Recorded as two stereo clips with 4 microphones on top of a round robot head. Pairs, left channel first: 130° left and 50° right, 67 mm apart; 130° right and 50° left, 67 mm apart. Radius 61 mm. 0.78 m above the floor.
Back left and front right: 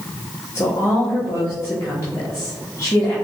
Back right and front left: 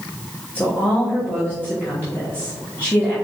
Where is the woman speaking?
170° left, 1.4 m.